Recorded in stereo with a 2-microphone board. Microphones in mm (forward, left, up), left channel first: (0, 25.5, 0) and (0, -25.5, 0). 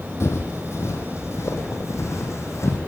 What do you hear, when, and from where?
0.2 s footsteps: 60° left (ahead or behind), 4 m; by 2.8 s 70° left (ahead or behind), 5.5 m